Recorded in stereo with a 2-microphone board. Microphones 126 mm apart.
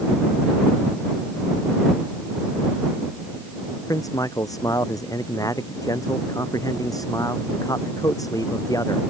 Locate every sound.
3.9 s a man speaking: 30° left (ahead or behind)